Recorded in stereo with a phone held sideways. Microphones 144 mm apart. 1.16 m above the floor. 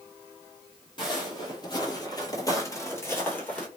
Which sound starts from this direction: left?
Footsteps, at 1.0 s.